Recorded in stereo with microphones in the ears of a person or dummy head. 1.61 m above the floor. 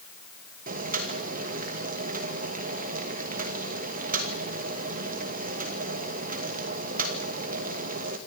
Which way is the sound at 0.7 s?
45° right (ahead or behind).